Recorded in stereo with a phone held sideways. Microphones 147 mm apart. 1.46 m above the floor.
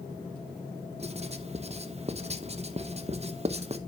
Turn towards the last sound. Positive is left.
turn(degrees=-45)  # may be behind; listen again after turning